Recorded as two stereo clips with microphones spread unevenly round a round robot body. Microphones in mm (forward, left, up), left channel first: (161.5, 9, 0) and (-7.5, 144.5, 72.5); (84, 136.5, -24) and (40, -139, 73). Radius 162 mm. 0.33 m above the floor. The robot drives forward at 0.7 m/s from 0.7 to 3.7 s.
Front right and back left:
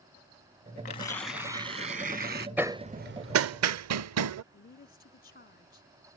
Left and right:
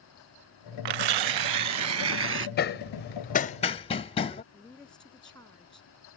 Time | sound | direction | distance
0.8 | tearing paper | 100° right | ?
2.6 | hammering | 45° left | ?
4.5 | a woman speaking | straight ahead | ?